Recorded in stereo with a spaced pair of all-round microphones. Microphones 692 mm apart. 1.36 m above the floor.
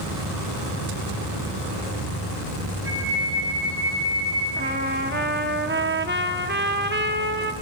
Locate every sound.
2.9 s a flute: 80° right, 10 m
4.6 s a trumpet: 15° right (ahead or behind), 1.1 m